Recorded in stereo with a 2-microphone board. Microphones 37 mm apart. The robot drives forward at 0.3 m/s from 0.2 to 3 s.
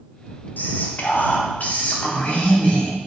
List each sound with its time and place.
0.6 s whispering: 55° left (ahead or behind), 0.8 m; by 2.9 s 35° left (ahead or behind), 1.2 m